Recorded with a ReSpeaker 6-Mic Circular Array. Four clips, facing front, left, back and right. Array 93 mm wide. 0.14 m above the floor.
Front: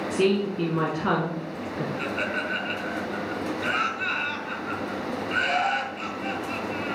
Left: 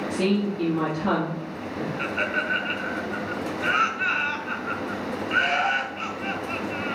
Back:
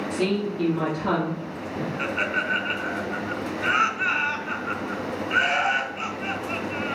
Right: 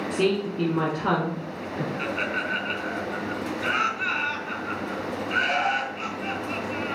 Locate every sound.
0.1 s a woman speaking: 45° right, 1.5 m
2.0 s laughter: 165° left, 1.4 m